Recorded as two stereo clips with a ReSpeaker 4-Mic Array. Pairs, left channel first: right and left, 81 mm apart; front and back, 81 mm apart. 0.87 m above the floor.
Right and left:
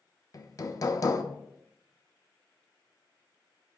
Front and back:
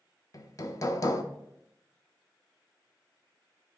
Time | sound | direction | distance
0.3 | hammering | 45° right | 0.8 m